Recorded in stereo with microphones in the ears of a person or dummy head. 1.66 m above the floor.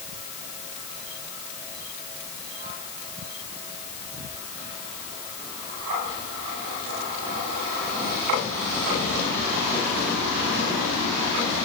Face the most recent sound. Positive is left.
No sound to turn to.